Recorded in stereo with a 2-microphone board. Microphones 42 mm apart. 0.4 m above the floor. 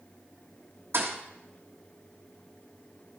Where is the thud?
65° right (ahead or behind), 1.4 m.